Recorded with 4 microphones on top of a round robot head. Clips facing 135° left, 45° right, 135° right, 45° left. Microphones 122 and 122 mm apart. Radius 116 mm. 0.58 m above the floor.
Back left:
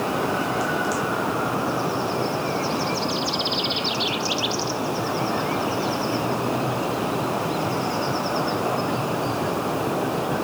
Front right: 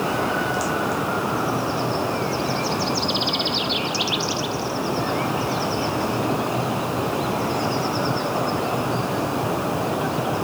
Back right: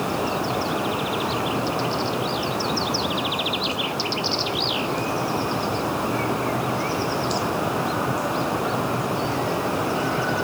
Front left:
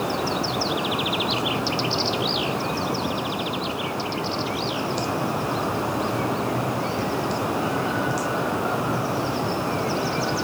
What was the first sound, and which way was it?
Only background noise.